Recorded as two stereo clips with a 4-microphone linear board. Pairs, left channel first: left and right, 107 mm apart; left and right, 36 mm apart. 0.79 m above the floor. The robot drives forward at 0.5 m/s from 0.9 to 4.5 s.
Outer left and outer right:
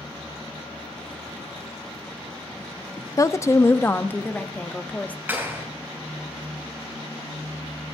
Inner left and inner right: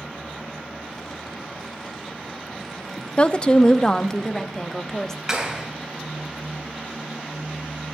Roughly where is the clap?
Centre.